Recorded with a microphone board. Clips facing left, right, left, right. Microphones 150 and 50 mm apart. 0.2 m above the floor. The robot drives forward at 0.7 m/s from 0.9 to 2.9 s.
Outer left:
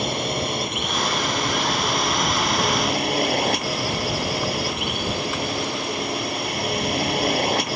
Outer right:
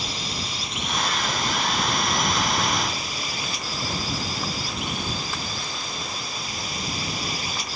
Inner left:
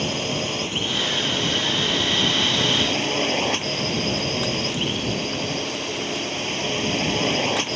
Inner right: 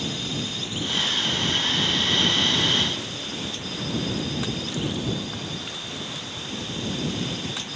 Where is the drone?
60° left (ahead or behind); by 7.8 s 65° left (ahead or behind).